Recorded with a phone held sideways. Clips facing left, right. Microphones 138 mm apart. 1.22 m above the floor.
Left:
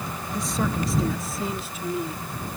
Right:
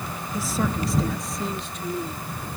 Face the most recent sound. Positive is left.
turn(degrees=10)  # may be behind; listen again after turning